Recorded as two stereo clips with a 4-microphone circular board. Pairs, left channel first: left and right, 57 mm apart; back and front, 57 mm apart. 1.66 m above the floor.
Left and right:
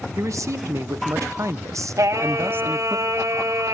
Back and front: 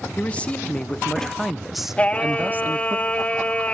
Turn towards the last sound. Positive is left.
turn(degrees=-115)